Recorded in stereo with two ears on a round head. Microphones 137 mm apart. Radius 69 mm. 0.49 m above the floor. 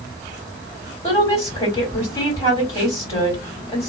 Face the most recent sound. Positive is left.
turn(degrees=20)  # may be behind; listen again after turning